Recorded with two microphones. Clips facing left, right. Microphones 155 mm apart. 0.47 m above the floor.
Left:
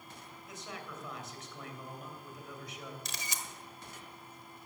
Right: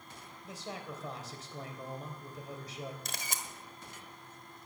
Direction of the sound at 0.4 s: 35° right (ahead or behind).